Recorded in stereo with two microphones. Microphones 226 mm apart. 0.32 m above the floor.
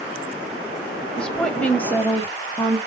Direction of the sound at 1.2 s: 5° left (ahead or behind).